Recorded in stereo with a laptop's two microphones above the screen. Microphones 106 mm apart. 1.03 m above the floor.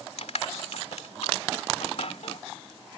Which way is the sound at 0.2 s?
70° left (ahead or behind).